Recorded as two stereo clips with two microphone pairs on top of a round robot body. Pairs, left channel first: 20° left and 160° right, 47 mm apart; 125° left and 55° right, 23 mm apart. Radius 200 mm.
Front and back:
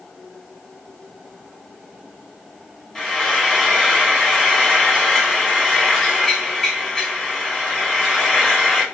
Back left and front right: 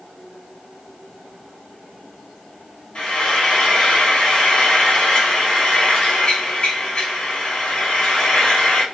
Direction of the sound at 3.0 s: 110° left.